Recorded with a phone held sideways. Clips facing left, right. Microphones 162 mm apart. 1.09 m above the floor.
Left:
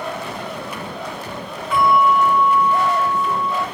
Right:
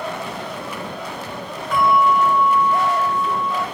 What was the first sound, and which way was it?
A bell, 5° left (ahead or behind).